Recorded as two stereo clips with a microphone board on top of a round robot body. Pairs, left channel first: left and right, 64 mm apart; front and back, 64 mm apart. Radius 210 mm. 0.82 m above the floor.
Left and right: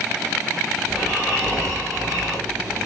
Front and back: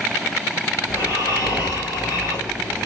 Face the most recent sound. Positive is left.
turn(degrees=0)